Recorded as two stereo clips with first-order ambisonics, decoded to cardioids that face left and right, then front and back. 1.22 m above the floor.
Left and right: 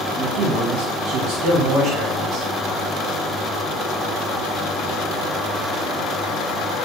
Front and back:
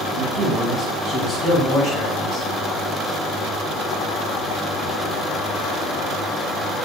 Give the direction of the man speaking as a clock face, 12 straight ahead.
5 o'clock.